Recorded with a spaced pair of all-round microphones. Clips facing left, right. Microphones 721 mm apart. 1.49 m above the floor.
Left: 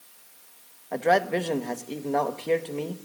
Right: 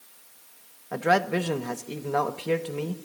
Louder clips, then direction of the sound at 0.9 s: Left 1 dB; 40° right (ahead or behind).